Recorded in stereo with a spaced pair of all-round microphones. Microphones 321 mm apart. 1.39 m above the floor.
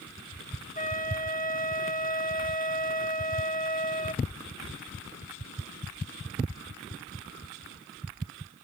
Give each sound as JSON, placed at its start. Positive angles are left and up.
{"t": 0.8, "sound": "a flute", "side_deg": 25}